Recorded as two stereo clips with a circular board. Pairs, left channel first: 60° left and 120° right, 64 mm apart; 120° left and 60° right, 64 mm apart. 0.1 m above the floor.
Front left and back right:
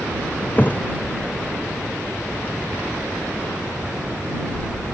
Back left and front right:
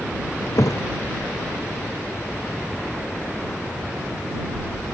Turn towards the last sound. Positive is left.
turn(degrees=120)